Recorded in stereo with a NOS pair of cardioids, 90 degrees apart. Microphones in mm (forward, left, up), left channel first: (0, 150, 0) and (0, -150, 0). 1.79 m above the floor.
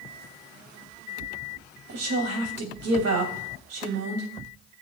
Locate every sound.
1.9 s a woman speaking: 55° right, 3 m